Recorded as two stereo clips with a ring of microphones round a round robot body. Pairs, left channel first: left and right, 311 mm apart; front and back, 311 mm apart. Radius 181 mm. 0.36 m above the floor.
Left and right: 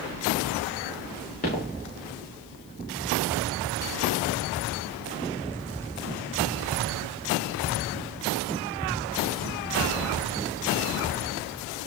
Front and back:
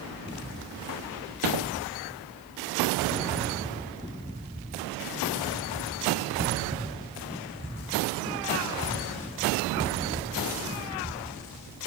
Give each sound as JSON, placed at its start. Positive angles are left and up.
{"t": 1.4, "sound": "footsteps", "azimuth_deg": 160, "distance_m": 6.0}